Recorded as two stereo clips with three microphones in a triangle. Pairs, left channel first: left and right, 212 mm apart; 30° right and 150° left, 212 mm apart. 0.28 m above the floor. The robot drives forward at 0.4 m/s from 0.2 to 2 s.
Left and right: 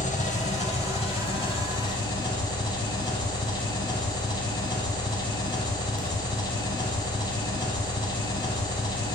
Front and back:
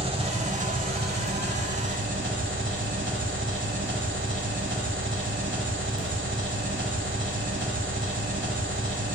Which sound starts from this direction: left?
An engine running, at 0.0 s.